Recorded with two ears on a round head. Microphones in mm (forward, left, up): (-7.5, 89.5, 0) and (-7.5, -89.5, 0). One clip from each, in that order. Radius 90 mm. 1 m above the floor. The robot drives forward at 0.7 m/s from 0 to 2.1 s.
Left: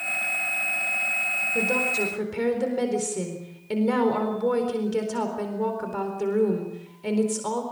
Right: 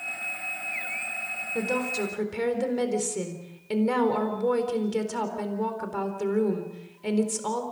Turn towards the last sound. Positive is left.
turn(degrees=-10)  # may be behind; listen again after turning